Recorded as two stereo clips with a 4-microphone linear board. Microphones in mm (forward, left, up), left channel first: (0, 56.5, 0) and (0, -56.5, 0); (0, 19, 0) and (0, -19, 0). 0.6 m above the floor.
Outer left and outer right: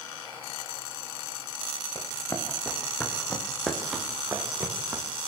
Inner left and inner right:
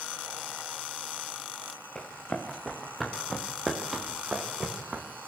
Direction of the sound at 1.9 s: 25° left (ahead or behind).